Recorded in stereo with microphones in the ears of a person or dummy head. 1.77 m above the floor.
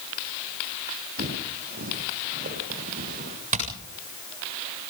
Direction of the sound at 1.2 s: 50° right (ahead or behind).